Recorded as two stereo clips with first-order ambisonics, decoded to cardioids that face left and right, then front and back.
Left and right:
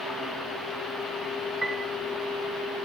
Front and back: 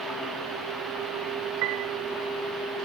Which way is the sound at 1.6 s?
170° right.